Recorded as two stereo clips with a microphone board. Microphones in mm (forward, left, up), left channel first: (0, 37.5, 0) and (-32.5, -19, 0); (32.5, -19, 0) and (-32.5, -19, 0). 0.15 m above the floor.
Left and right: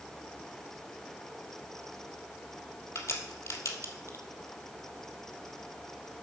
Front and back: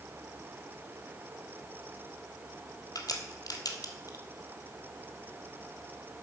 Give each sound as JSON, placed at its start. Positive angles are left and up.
{"t": 3.0, "sound": "a crack", "azimuth_deg": 20, "distance_m": 1.2}